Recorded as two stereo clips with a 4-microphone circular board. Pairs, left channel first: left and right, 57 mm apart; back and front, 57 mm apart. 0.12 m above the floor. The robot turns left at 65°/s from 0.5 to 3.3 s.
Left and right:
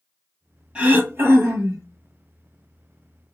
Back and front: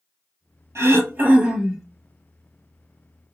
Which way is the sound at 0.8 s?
25° right.